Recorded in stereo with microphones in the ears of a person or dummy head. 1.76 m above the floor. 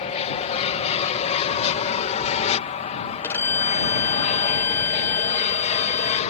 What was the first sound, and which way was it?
An aircraft, 35° left (ahead or behind).